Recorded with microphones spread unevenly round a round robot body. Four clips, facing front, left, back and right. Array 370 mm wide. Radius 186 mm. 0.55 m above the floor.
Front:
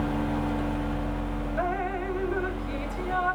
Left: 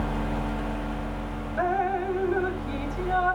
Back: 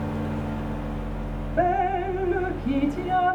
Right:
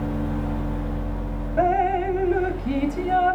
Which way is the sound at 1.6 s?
140° right.